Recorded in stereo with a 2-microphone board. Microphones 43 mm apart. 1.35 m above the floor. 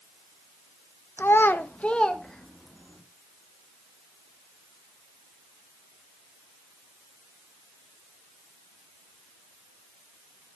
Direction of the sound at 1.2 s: 65° left (ahead or behind).